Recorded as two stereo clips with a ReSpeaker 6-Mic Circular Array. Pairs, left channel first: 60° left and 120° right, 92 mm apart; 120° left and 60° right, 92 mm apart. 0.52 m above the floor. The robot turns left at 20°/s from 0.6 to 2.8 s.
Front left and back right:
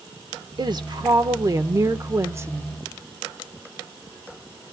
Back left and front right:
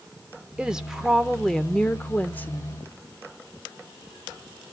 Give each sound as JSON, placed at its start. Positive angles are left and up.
{"t": 0.6, "sound": "a woman speaking", "azimuth_deg": -135, "distance_m": 1.1}